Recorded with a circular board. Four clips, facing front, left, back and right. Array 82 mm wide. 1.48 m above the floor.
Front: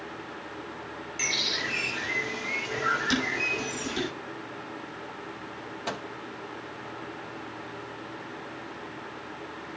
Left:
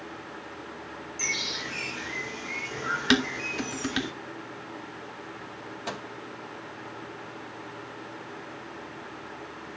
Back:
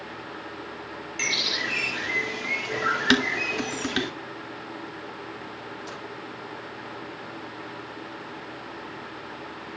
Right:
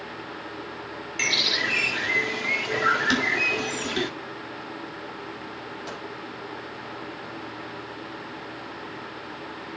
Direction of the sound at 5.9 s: 25° left.